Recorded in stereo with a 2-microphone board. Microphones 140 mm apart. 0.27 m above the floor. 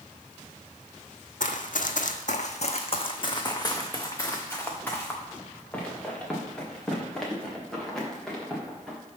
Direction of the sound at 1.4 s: 70° left (ahead or behind).